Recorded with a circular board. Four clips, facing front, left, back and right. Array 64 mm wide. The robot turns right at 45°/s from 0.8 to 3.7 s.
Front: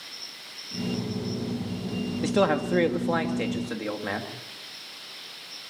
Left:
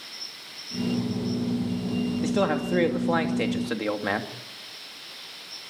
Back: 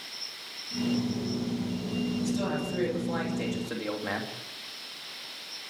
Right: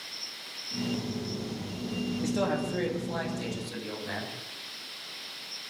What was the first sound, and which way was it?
A man speaking, 15° left.